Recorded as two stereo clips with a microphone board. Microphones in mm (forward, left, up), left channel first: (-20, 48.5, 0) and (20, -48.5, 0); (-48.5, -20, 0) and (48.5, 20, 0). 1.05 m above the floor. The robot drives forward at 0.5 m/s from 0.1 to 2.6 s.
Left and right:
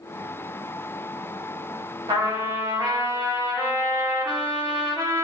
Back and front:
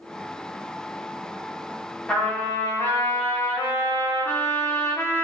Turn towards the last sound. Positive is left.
turn(degrees=-110)